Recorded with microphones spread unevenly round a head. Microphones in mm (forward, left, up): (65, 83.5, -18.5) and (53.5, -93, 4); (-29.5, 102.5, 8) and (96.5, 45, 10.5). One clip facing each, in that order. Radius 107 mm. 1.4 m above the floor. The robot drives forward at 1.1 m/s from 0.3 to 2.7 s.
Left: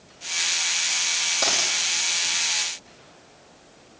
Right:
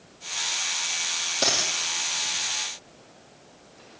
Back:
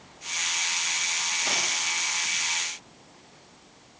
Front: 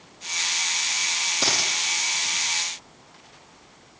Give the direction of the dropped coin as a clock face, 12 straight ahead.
1 o'clock.